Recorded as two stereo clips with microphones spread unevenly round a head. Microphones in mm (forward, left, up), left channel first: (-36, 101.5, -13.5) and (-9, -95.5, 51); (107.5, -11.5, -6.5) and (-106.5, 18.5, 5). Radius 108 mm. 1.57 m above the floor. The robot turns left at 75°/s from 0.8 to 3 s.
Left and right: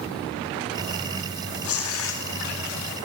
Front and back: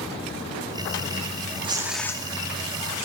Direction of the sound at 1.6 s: 105° left.